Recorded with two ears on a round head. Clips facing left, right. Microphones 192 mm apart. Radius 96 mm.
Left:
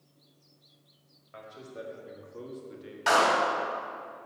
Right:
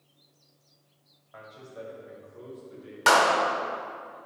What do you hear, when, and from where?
1.3 s a man speaking: 35° left (ahead or behind), 2 m; by 3.0 s 65° left (ahead or behind), 1.7 m
3.1 s a clap: 70° right (ahead or behind), 1.4 m